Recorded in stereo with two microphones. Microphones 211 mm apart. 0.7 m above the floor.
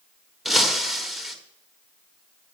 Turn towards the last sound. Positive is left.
turn(degrees=0)  # may be behind; listen again after turning